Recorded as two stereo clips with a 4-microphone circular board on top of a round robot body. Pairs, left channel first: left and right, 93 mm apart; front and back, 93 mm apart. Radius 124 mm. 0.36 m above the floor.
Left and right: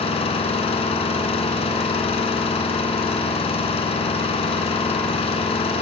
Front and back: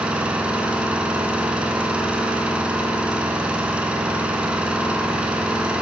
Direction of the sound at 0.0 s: 100° left.